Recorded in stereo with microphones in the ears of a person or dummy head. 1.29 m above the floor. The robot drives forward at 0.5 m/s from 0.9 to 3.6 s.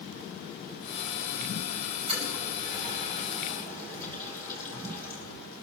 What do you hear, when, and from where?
2.1 s a toilet flushing: 30° right (ahead or behind), 3 m; by 5.2 s 25° right (ahead or behind), 4 m